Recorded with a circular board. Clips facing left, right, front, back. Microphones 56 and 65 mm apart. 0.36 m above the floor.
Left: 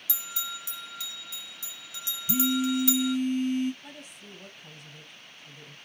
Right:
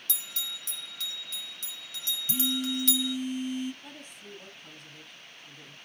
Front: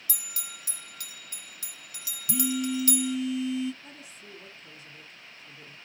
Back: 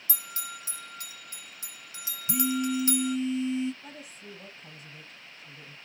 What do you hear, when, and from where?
0.1 s a bell: 160° left, 0.7 m
2.3 s a phone buzzing: 120° left, 1.2 m
3.8 s a woman speaking: 160° left, 1.9 m